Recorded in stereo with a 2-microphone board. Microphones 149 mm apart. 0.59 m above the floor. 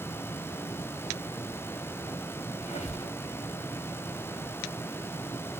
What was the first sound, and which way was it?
A squeak, 50° left (ahead or behind).